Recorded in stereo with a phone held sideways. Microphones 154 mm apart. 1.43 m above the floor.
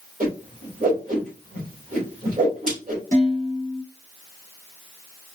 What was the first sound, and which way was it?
A whoosh, 60° right (ahead or behind).